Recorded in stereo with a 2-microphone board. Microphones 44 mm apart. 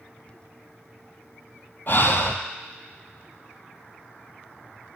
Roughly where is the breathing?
Left.